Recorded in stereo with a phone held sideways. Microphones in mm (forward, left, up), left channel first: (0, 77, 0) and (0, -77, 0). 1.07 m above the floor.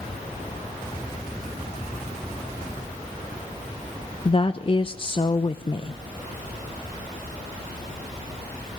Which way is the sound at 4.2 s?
35° left (ahead or behind).